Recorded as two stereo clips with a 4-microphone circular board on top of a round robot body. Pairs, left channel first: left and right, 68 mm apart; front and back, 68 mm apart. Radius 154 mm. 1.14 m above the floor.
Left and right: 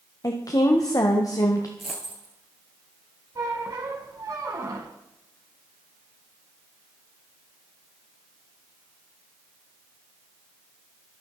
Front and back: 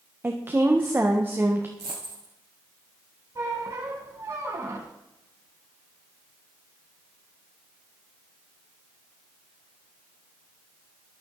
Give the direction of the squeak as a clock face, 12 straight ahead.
4 o'clock.